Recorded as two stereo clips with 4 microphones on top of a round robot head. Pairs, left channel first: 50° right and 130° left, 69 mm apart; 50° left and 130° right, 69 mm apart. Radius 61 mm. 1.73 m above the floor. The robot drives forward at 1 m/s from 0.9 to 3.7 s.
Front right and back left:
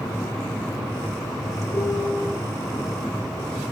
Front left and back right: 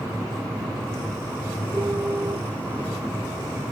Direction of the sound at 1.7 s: 60° right.